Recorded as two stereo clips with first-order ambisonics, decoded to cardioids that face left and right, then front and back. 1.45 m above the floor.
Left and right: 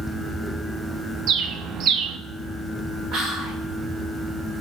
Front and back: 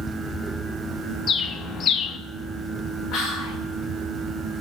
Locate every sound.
1.3 s a bird: 55° right, 0.5 m
3.1 s whispering: 50° right, 5 m